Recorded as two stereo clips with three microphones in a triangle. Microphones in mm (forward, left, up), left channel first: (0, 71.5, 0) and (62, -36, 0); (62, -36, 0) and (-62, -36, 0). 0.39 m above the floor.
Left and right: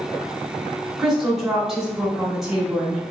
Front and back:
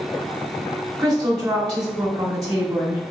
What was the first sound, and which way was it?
A woman speaking, 145° right.